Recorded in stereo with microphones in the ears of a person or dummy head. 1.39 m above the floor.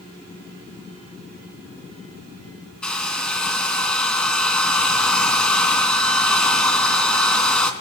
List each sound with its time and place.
2.8 s a hair dryer: 5° left (ahead or behind), 3 m